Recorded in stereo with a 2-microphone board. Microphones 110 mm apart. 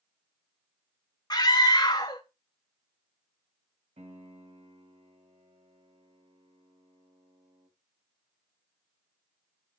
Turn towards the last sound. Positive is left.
turn(degrees=-75)  # may be behind; listen again after turning